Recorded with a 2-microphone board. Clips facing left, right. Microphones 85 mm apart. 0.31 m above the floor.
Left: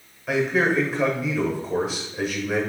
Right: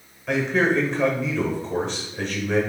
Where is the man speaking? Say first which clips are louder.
Even; 5° left (ahead or behind), 1.0 m.